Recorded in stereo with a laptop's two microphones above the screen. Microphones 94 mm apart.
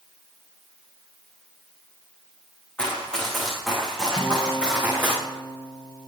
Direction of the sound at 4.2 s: 50° left (ahead or behind).